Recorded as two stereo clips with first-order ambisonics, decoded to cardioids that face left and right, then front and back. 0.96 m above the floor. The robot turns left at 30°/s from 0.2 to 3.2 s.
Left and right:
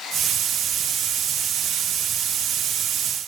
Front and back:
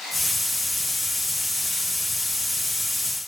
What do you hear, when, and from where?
Only background noise.